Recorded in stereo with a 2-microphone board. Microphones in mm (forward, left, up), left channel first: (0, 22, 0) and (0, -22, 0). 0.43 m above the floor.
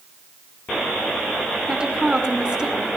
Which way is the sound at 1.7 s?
25° right (ahead or behind).